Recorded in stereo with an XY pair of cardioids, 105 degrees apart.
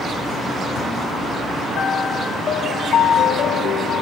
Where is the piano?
60° left, 1.9 m.